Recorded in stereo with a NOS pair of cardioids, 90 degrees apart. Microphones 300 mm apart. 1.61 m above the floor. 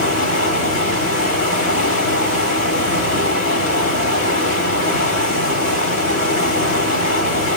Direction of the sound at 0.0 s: 50° left.